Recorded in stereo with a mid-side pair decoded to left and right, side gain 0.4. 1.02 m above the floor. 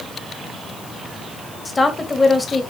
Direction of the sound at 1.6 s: 30° left.